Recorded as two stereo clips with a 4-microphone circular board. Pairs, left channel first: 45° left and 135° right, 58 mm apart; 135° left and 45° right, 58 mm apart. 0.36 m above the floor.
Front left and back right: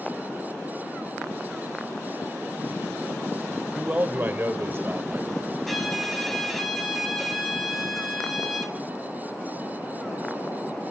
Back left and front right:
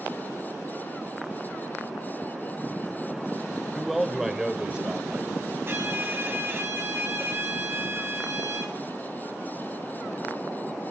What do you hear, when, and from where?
3.8 s a man speaking: 145° right, 0.8 m; by 5.5 s 110° right, 1.5 m
5.7 s a violin: 40° right, 1.9 m